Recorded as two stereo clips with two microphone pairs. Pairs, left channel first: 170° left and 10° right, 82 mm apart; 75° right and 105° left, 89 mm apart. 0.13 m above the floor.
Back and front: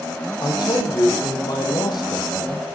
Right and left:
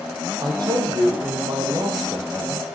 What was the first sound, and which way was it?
A man speaking, 140° left.